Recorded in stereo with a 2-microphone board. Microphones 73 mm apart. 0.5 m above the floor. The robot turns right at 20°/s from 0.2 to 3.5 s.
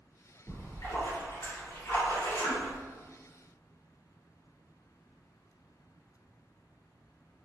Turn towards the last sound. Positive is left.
turn(degrees=135)